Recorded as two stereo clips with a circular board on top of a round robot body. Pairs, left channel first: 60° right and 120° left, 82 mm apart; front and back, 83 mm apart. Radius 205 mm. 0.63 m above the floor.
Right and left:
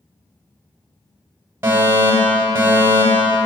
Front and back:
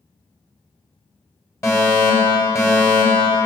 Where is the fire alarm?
55° left, 8 m.